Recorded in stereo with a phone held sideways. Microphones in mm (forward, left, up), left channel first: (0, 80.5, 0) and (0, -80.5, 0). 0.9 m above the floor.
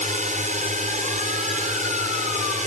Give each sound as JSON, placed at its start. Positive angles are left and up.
{"t": 0.0, "sound": "a drone", "side_deg": -50}